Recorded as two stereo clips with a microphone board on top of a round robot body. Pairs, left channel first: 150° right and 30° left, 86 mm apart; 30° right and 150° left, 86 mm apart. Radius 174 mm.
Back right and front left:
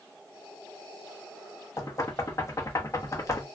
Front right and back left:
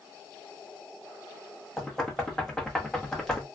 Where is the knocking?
110° right, 1.0 m.